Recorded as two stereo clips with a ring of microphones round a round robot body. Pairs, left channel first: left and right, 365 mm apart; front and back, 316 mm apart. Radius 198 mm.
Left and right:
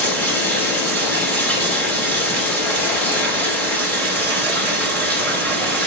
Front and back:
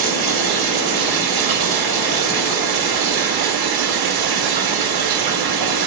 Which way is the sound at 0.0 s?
175° left.